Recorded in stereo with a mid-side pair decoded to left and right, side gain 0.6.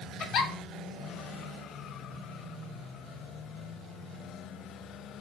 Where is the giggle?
55° left, 0.9 m.